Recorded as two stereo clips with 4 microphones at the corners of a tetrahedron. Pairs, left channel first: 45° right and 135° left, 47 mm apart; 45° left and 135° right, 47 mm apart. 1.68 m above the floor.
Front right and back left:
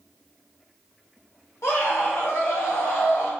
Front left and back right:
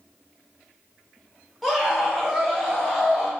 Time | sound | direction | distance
1.6 | a scream | 45° right | 1.1 m